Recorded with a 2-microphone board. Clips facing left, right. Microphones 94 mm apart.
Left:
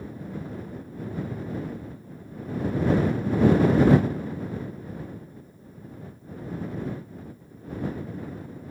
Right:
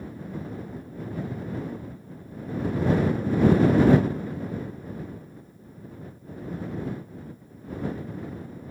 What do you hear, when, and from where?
Only background noise.